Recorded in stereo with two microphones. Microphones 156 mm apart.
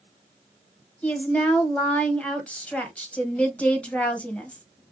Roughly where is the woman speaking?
Centre.